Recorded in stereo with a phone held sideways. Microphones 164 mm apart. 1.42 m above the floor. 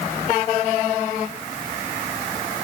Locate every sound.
Only background noise.